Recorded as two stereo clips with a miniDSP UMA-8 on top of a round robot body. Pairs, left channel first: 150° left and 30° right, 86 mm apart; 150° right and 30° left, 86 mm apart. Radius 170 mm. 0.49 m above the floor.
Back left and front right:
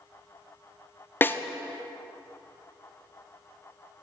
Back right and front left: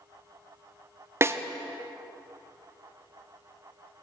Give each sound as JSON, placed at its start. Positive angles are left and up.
{"t": 1.2, "sound": "a snare drum", "azimuth_deg": 85, "distance_m": 0.6}